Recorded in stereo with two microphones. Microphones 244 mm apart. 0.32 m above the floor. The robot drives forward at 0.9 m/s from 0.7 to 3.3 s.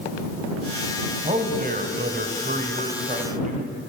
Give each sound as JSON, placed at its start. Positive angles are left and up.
{"t": 1.2, "sound": "a man speaking", "side_deg": -30, "distance_m": 1.6}